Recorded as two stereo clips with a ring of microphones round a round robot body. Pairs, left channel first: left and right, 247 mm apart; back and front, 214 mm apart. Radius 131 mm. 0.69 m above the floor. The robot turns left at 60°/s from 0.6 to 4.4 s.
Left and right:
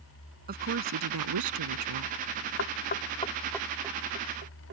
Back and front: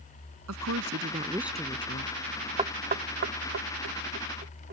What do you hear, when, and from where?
0.5 s a woman speaking: 35° right; by 2.1 s 125° right
2.6 s knocking: 60° left; by 4.7 s 45° right